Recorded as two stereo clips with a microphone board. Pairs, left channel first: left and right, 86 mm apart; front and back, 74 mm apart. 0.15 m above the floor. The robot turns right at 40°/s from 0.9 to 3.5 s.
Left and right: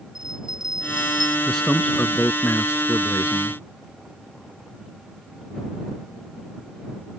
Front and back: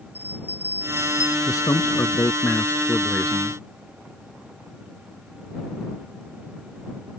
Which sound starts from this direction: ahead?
A man speaking, at 1.5 s.